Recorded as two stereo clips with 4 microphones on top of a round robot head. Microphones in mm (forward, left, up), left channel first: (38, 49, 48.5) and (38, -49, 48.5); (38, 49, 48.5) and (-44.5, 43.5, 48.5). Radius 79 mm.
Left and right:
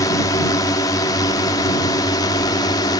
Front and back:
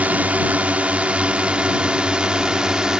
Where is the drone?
120° left; by 3.0 s 110° left.